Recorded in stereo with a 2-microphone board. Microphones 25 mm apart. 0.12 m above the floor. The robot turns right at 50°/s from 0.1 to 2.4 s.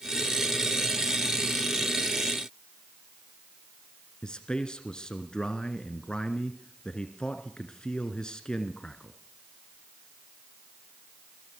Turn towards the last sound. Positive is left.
turn(degrees=30)  # may be behind; listen again after turning